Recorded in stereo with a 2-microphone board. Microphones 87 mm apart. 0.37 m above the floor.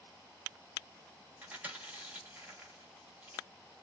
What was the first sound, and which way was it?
Chewing, 20° right (ahead or behind).